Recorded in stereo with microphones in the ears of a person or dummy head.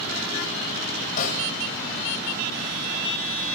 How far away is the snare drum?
About 1.1 m.